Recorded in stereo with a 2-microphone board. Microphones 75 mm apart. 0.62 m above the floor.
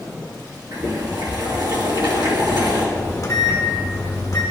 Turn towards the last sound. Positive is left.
turn(degrees=50)  # may be behind; listen again after turning